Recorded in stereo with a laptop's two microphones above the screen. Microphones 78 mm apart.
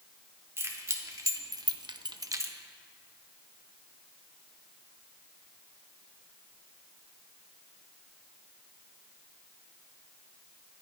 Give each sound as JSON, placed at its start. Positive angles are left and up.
{"t": 0.6, "sound": "keys jangling", "side_deg": -35, "distance_m": 1.6}